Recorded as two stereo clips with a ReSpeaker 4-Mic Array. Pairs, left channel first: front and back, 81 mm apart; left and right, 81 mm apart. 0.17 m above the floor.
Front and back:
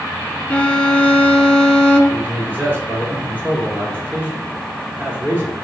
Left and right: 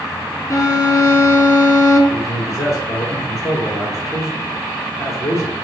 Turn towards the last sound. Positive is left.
turn(degrees=120)